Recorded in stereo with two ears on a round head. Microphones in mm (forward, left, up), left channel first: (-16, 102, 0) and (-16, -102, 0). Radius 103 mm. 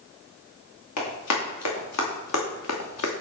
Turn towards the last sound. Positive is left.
turn(degrees=70)  # may be behind; listen again after turning